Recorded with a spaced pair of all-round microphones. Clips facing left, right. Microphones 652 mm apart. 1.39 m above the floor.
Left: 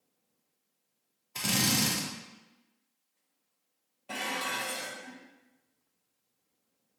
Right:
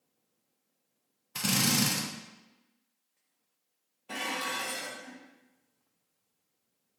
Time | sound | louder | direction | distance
1.4 | a drill | right 1 dB | 40° right (ahead or behind) | 0.7 m
4.1 | dishes clattering | even | 10° left (ahead or behind) | 0.6 m